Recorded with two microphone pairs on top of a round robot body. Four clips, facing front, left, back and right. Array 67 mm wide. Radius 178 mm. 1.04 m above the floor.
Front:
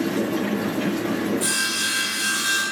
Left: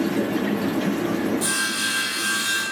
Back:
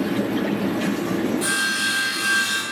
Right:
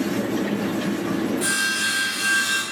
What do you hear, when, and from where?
1.4 s sawing: 105° right, 1.3 m